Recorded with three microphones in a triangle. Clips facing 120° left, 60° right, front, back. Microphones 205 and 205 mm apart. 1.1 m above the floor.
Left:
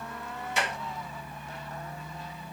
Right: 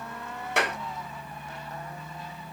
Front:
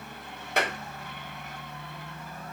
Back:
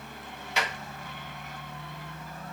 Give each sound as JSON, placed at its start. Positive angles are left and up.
{"t": 0.6, "sound": "a clap", "azimuth_deg": -35, "distance_m": 2.0}